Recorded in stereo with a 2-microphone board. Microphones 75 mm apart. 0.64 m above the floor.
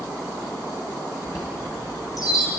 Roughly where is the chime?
Left.